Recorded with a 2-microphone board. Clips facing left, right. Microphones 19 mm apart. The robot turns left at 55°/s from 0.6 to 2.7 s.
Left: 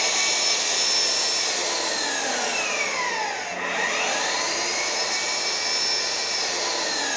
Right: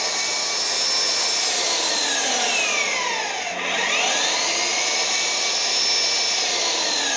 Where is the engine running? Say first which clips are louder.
Left 1 dB; 30° left, 2 m; by 7.2 s 85° right, 2 m.